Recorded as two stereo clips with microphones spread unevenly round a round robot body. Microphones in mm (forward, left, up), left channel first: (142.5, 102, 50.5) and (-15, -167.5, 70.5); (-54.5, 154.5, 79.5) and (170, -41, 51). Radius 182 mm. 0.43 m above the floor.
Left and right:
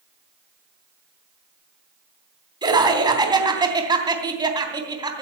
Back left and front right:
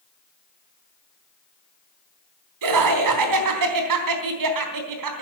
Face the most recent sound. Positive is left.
turn(degrees=-45)